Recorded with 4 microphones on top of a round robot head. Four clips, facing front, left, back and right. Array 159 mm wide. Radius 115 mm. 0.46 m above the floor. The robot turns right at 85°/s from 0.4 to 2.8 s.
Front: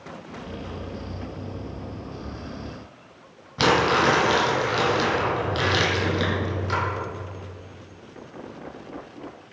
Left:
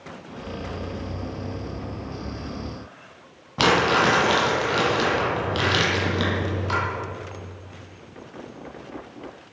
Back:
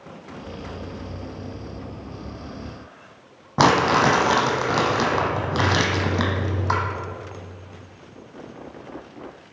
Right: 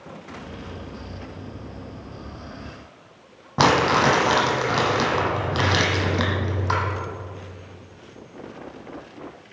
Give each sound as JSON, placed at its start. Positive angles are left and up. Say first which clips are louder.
{"t": 3.6, "sound": "crumpling", "louder": "right 1 dB, back 3 dB", "azimuth_deg": -150, "distance_m": 1.5}